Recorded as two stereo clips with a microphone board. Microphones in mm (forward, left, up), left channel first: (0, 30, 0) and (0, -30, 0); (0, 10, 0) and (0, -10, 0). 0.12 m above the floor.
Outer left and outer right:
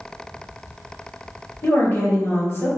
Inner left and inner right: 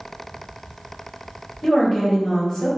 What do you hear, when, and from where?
1.6 s a woman speaking: 45° left (ahead or behind), 1.7 m